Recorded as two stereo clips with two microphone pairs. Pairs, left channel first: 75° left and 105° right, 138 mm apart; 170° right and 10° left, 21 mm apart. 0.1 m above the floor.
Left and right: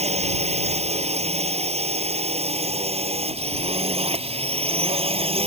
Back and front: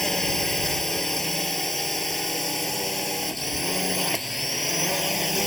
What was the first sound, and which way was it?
A drone, 100° right.